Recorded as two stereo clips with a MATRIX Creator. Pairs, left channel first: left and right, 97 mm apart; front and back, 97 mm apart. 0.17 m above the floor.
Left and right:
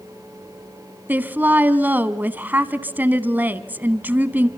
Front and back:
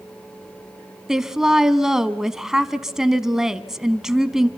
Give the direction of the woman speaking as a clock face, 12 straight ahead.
4 o'clock.